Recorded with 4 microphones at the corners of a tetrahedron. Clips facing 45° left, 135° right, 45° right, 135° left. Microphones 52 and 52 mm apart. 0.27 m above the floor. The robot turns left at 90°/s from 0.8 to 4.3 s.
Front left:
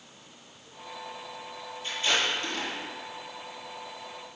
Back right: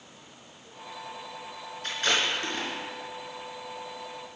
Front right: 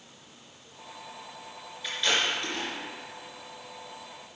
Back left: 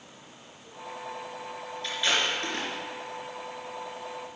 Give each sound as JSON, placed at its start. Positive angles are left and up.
{"t": 1.8, "sound": "tape being pulled", "azimuth_deg": -125, "distance_m": 2.5}